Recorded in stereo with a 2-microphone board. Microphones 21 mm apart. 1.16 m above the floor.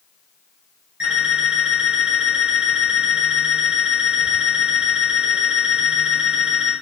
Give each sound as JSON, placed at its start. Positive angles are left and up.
{"t": 1.0, "sound": "an alarm clock", "side_deg": -80, "distance_m": 2.5}